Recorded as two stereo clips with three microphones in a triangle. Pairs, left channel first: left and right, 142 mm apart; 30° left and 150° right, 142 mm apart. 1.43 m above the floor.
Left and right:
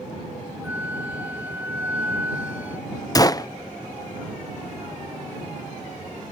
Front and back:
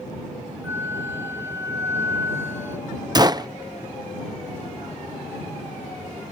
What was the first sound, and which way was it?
A flute, 135° right.